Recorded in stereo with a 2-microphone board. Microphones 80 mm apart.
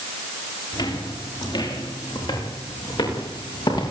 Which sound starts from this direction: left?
Footsteps, at 0.7 s.